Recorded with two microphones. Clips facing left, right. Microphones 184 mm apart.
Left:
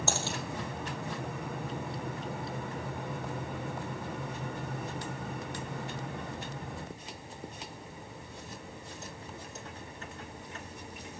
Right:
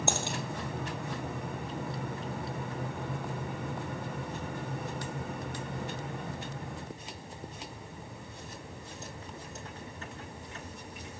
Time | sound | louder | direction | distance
0.1 | a dropped coin | right 1 dB | 15° right (ahead or behind) | 2.5 m